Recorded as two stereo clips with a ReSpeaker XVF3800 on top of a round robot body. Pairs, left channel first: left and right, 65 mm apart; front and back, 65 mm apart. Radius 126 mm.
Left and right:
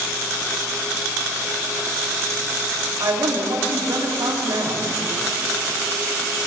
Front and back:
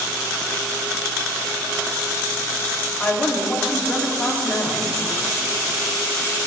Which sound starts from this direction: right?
A woman speaking, at 3.0 s.